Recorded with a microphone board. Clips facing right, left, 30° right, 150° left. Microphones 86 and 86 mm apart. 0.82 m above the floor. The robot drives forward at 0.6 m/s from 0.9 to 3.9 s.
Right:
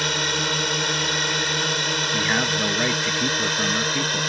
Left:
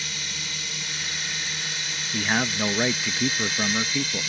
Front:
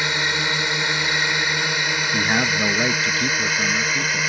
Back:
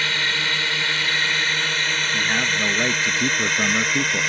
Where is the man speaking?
5° left; by 4.3 s 175° left.